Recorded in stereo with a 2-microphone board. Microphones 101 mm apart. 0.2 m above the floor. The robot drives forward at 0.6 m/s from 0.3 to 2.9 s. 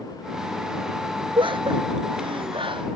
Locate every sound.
1.4 s laughter: 55° right (ahead or behind); by 2.9 s 60° right (ahead or behind)